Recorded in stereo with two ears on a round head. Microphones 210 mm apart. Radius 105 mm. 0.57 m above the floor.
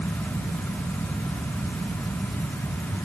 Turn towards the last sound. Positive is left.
No sound to turn to.